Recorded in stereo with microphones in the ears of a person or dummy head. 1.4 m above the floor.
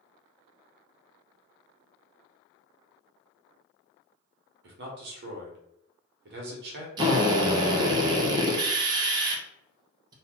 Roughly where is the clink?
No clink in this recording.